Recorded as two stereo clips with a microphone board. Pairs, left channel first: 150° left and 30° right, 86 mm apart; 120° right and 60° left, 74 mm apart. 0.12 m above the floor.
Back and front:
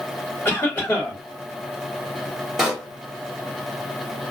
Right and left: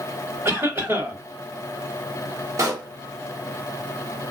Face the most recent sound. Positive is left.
turn(degrees=55)